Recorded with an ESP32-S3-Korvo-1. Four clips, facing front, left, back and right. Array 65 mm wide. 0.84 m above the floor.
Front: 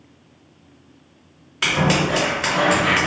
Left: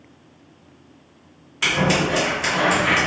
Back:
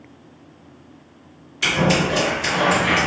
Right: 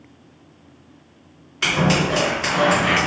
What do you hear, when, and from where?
1.6 s scissors: 15° right, 1.6 m